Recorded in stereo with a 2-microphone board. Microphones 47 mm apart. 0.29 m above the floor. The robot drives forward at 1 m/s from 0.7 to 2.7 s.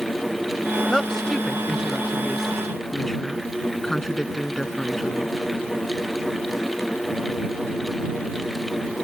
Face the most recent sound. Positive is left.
turn(degrees=5)  # may be behind; listen again after turning